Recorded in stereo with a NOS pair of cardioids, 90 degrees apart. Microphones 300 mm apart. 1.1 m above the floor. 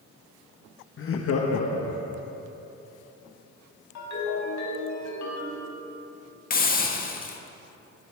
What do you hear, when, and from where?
1.0 s laughter: 40° left, 1.4 m; by 2.3 s 75° left, 2 m
4.0 s a ringtone: 65° left, 4.5 m
6.5 s a hiss: 30° left, 1.7 m